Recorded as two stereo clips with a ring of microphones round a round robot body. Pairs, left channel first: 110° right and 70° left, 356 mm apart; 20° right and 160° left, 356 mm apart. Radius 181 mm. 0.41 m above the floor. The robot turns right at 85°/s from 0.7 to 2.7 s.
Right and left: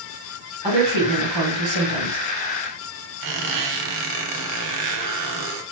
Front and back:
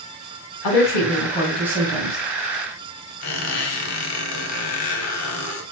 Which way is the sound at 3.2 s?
30° left.